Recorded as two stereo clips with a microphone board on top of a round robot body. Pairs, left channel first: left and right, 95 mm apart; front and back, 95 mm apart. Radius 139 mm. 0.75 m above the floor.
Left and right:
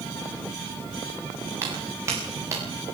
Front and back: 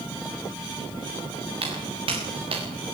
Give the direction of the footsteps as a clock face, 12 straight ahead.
5 o'clock.